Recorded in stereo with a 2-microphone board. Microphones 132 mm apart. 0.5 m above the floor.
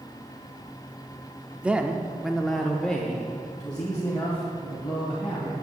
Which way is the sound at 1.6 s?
10° right (ahead or behind).